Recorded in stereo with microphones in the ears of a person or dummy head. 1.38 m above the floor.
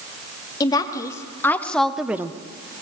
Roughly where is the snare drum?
No snare drum in this recording.